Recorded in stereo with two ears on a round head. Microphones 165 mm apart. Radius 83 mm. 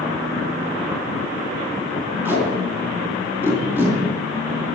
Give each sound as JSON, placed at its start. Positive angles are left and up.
{"t": 2.2, "sound": "tape being pulled", "side_deg": -10, "distance_m": 4.5}